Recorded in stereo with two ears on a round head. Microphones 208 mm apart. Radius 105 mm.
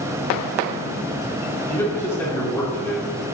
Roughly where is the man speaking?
Centre.